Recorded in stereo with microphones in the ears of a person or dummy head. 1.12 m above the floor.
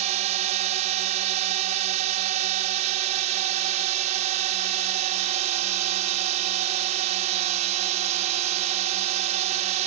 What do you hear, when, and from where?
0.0 s a drone: 35° right (ahead or behind)